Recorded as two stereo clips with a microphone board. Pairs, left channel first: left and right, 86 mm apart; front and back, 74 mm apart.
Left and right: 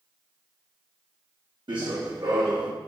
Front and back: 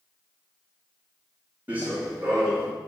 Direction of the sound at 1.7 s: 110° right.